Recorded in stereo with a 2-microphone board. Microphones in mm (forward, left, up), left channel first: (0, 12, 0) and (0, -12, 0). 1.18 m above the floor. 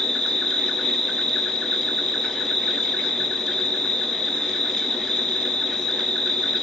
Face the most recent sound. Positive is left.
turn(degrees=30)  # may be behind; listen again after turning